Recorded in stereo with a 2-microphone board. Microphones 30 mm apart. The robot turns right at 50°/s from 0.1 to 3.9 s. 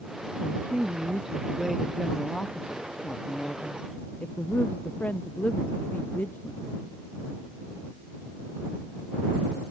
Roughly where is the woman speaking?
Right.